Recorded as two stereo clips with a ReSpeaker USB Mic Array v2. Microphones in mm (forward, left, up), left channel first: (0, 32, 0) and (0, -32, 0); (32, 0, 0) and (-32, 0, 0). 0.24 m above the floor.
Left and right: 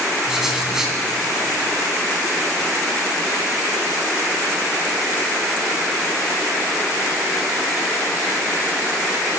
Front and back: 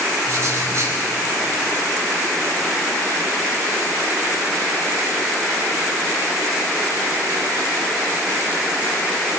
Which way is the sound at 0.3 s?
170° right.